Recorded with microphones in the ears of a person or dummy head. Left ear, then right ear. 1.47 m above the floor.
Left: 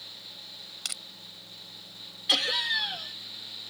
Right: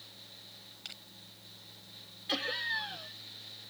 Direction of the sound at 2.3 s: 40° left (ahead or behind).